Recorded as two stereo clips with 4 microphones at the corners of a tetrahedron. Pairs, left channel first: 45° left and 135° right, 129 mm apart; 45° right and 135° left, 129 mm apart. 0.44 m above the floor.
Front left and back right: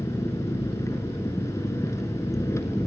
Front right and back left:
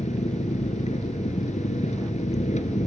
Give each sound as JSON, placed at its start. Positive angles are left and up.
{"t": 0.0, "sound": "an engine running", "azimuth_deg": -20, "distance_m": 1.8}